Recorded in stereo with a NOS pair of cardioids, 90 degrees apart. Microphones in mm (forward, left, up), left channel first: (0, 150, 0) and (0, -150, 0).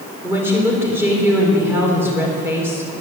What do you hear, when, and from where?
0.2 s a woman speaking: 10° right, 3.5 m